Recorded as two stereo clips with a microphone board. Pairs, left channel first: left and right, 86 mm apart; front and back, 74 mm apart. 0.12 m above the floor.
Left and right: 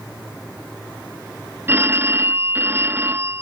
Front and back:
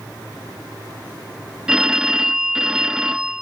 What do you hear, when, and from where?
1.7 s a phone ringing: 110° right, 0.7 m